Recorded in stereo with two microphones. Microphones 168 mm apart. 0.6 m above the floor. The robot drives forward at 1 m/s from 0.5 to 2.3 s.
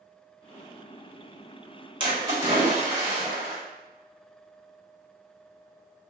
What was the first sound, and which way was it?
A splash, 30° right (ahead or behind).